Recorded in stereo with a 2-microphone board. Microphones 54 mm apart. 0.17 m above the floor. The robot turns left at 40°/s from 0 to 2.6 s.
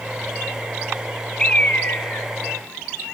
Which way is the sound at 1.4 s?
15° left (ahead or behind).